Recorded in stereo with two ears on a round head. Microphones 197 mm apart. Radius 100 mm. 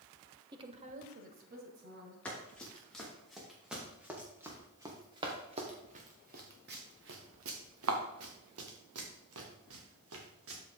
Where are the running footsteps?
5° left (ahead or behind), 4 m; by 10.6 s 70° right (ahead or behind), 3.5 m.